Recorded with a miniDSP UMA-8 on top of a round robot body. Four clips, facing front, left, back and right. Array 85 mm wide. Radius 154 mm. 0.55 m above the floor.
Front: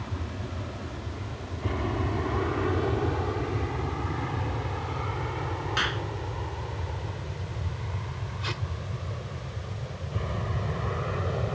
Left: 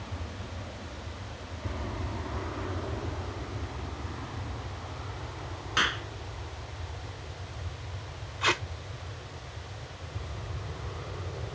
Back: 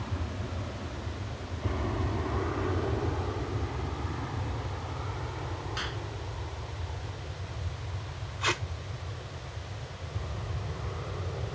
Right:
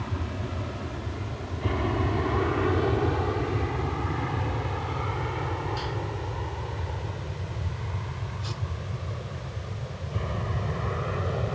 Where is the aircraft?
80° right; by 11.6 s 50° right.